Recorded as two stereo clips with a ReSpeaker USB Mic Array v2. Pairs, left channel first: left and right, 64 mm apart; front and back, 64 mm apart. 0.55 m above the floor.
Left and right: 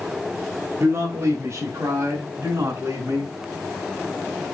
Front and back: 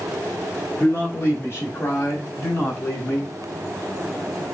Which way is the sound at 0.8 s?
50° right.